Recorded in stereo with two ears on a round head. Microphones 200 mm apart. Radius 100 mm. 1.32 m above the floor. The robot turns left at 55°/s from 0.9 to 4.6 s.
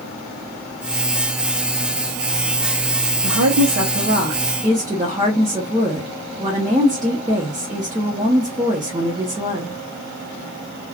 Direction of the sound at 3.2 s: 85° right.